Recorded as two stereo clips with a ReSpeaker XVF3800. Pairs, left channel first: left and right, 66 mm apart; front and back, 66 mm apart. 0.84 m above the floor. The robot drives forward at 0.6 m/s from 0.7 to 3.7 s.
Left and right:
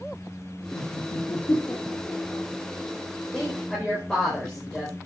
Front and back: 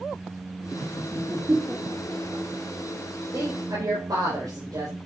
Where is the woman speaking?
165° left, 4 m; by 5.0 s 170° left, 4 m.